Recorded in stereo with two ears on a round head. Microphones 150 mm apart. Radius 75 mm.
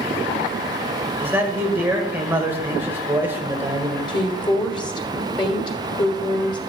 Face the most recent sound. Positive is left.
turn(degrees=25)  # may be behind; listen again after turning